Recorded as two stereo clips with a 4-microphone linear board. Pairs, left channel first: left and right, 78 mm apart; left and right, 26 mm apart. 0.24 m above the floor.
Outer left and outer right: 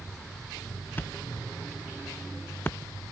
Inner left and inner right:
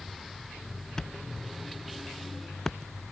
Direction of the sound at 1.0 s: 25° left (ahead or behind).